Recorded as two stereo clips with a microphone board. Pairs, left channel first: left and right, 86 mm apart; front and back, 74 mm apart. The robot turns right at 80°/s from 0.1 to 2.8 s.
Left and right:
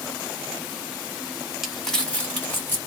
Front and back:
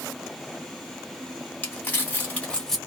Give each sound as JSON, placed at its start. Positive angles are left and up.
{"t": 1.6, "sound": "crumpling", "azimuth_deg": -10, "distance_m": 1.2}